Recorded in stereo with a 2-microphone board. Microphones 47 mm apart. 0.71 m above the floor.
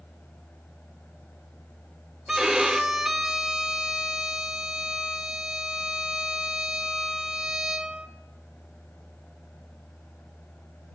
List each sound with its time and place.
2.3 s a violin: 10° right (ahead or behind), 1.4 m